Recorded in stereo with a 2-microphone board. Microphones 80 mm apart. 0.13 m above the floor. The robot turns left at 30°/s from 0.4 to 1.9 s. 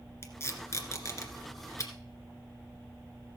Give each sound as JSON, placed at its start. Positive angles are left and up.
{"t": 0.2, "sound": "tape being pulled", "side_deg": 35, "distance_m": 1.8}